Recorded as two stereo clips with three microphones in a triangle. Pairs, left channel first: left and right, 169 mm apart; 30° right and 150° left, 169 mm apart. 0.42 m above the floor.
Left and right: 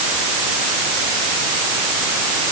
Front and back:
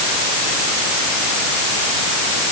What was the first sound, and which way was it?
Only background noise.